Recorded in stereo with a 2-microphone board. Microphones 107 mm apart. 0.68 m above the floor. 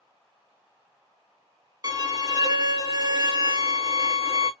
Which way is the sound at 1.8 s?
40° right (ahead or behind).